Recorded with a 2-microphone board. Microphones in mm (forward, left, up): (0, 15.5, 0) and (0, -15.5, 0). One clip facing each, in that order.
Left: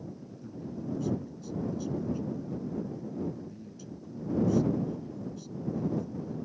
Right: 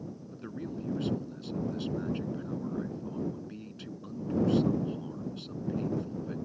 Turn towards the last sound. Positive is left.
turn(degrees=-55)  # may be behind; listen again after turning